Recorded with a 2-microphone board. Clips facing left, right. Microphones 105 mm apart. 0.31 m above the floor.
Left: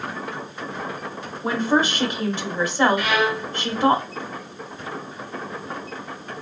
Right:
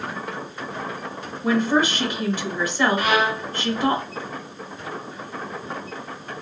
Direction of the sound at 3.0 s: 45° right (ahead or behind).